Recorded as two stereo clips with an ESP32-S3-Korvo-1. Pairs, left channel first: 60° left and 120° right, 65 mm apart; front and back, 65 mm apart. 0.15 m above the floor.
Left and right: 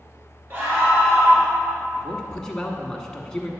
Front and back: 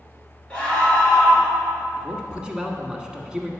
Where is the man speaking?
120° left, 1.1 m.